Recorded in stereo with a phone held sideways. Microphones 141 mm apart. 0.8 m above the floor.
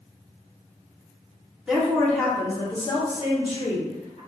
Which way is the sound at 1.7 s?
5° right (ahead or behind).